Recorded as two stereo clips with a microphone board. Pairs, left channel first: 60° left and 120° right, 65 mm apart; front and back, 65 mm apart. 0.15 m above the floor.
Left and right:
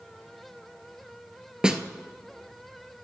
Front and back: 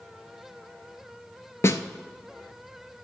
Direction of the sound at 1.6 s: 45° right.